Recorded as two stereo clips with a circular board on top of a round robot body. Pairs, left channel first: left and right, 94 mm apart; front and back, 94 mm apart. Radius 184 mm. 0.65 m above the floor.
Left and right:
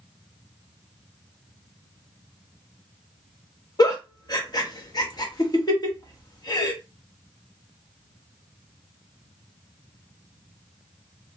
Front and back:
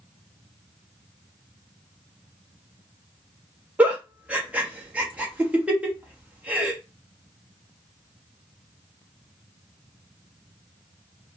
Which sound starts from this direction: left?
A giggle, at 3.8 s.